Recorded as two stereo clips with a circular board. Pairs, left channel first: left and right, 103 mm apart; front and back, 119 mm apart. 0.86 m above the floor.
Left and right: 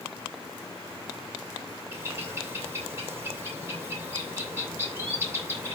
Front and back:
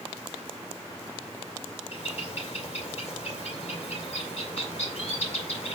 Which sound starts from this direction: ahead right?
A bird, at 1.9 s.